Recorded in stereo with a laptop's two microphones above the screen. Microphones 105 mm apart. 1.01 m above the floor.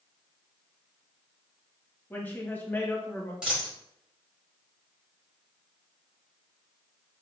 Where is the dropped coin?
5° right (ahead or behind), 1.8 m.